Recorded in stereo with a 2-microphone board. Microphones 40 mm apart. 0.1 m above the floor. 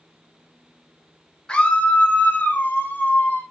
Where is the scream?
20° left (ahead or behind), 1.5 m; by 3.4 s 50° left (ahead or behind), 4 m.